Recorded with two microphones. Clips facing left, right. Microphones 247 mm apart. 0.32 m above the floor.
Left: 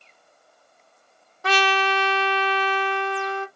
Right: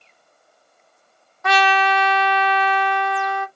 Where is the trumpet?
35° left (ahead or behind), 0.7 m.